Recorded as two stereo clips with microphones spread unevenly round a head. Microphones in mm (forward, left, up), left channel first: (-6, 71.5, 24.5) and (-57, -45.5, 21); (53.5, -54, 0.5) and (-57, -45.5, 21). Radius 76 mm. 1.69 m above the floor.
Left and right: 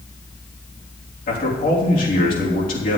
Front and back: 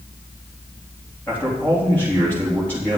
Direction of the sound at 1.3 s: 75° left.